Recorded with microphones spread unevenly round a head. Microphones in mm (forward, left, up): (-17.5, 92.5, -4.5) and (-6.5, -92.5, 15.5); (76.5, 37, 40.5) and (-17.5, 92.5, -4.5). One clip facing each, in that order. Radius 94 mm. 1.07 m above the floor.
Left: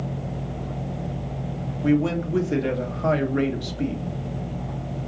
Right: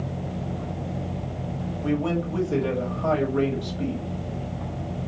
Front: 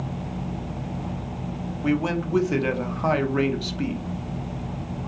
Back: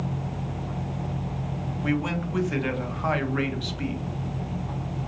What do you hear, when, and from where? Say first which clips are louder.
1.8 s a man speaking: left 4 dB, front 4 dB; 25° left, 0.9 m